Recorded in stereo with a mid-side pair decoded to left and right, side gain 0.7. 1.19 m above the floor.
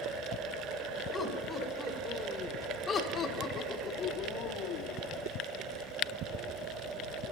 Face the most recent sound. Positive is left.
turn(degrees=65)